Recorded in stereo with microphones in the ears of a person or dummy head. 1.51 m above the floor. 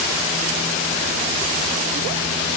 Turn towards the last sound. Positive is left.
No sound to turn to.